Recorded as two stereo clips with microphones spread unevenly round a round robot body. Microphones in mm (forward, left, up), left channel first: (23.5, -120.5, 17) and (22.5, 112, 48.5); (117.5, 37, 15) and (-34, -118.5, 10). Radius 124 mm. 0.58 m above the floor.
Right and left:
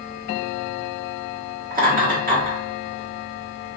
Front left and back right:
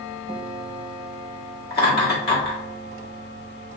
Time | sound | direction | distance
1.7 | laughter | 45° left | 1.5 m